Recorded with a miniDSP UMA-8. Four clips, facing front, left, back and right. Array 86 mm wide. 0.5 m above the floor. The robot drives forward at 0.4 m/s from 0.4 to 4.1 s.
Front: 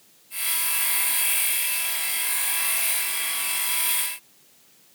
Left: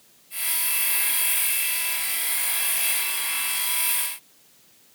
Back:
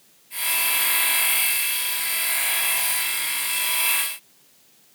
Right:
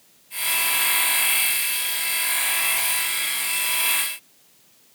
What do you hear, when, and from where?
Only background noise.